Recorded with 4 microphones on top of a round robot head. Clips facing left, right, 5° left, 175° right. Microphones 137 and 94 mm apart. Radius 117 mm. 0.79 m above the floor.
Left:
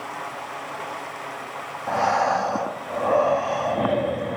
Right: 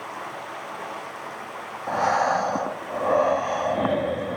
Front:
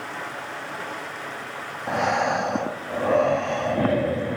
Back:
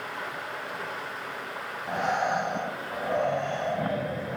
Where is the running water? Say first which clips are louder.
Left 2 dB, front 2 dB; straight ahead, 5.5 m.